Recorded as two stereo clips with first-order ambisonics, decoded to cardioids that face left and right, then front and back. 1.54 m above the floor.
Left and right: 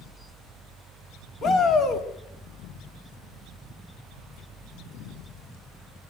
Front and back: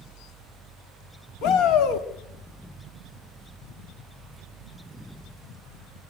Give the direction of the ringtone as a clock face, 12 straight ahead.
No ringtone in this recording.